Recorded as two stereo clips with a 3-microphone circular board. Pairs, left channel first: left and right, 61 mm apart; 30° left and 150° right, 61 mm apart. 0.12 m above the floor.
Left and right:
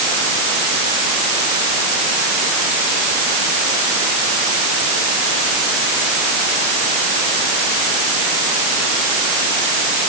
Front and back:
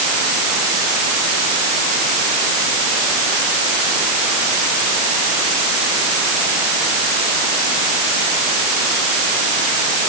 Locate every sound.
Only background noise.